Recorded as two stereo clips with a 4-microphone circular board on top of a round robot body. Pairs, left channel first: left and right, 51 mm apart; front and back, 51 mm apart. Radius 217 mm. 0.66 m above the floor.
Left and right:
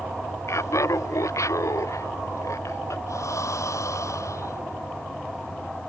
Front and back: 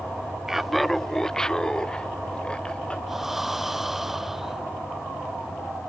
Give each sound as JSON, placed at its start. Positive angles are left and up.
{"t": 0.5, "sound": "laughter", "azimuth_deg": 100}
{"t": 3.1, "sound": "breathing", "azimuth_deg": 95}